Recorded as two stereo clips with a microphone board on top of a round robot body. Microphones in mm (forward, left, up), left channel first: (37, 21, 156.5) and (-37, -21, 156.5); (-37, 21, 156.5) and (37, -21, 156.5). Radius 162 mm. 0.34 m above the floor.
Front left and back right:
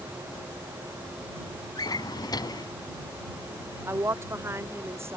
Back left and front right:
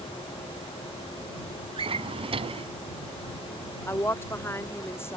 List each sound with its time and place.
1.8 s a drawer: 15° right
3.9 s a woman speaking: 175° right